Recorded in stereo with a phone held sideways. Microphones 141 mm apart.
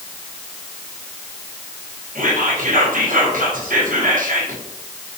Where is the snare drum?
No snare drum in this recording.